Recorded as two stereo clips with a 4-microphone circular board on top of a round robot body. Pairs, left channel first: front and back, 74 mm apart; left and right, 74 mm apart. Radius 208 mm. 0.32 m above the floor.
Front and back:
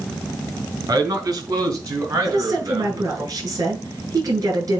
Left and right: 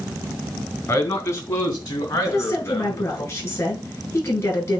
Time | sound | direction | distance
0.9 | a man speaking | 140° left | 3.5 m
2.2 | a woman speaking | 140° left | 4.5 m